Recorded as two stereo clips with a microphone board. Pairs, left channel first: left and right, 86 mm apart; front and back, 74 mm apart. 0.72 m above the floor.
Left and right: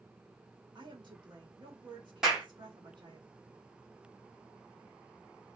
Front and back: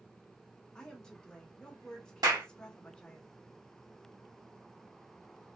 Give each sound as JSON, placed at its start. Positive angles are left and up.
{"t": 0.8, "sound": "a woman speaking", "azimuth_deg": -75, "distance_m": 1.0}
{"t": 2.2, "sound": "a clap", "azimuth_deg": -175, "distance_m": 1.6}